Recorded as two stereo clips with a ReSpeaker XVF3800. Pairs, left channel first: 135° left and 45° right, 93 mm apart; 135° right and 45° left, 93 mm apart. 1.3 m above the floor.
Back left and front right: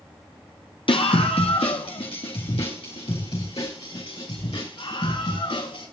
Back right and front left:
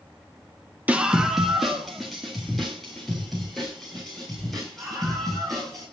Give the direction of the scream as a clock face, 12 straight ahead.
8 o'clock.